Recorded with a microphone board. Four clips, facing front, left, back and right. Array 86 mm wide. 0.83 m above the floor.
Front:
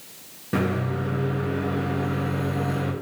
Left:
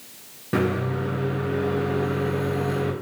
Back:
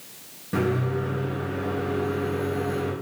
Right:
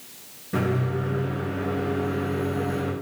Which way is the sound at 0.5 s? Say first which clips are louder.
Left 2 dB, even; 70° left.